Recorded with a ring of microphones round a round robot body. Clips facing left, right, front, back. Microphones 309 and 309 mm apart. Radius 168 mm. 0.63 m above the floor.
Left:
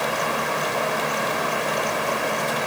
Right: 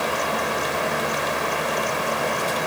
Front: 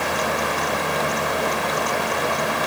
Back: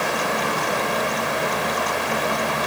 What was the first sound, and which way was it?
Only background noise.